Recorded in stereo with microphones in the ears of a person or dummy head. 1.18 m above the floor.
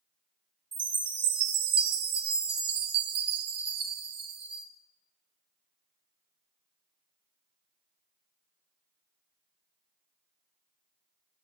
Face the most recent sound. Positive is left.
turn(degrees=-25)  # may be behind; listen again after turning